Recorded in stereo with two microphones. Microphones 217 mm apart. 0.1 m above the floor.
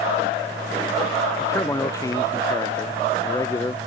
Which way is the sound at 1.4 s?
15° left (ahead or behind).